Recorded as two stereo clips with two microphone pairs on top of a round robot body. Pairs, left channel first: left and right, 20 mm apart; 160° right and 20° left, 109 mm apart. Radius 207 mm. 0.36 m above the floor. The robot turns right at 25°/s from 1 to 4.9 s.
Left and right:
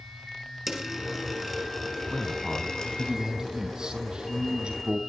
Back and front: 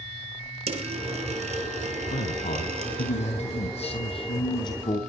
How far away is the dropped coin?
About 3 m.